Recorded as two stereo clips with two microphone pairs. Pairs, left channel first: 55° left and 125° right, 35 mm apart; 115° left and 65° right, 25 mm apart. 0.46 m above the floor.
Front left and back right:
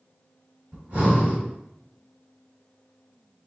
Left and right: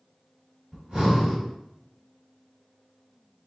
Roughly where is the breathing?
Right.